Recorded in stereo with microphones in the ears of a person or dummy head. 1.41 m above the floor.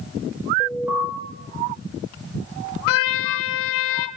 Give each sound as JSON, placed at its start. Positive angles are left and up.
{"t": 0.6, "sound": "an alarm", "side_deg": -10, "distance_m": 4.0}
{"t": 2.9, "sound": "a trumpet", "side_deg": 70, "distance_m": 0.6}